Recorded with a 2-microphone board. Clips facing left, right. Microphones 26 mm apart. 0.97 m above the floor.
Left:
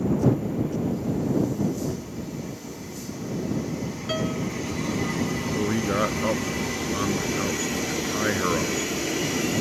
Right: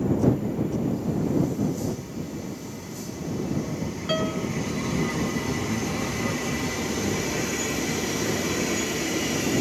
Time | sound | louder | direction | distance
4.1 | a piano | right 1 dB | 5° right (ahead or behind) | ?
5.5 | a man speaking | left 4 dB | 65° left (ahead or behind) | ?